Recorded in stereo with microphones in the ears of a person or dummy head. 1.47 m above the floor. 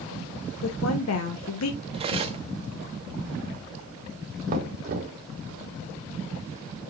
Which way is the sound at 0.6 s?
90° left.